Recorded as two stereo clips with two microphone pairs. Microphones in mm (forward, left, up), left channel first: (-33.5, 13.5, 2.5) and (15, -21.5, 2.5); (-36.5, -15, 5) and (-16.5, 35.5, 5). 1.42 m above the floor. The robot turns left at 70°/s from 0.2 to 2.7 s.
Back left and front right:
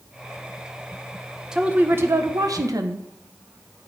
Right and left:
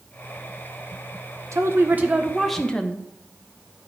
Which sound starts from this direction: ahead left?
A woman speaking, at 1.5 s.